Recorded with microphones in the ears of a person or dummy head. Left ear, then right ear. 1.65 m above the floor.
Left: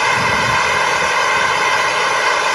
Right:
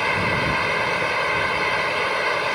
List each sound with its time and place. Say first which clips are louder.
0.0 s a fan: left 7 dB; 40° left (ahead or behind)